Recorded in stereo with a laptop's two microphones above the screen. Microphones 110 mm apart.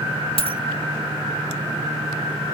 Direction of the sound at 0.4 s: 60° left (ahead or behind).